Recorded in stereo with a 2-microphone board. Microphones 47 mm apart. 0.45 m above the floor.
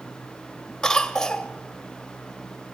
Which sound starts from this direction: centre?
A cough, at 0.8 s.